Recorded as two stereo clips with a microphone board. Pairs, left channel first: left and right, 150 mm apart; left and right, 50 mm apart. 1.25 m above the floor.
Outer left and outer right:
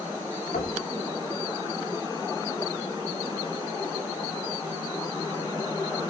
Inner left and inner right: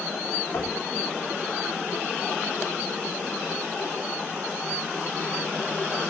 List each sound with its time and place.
0.5 s knocking: 80° left, 3 m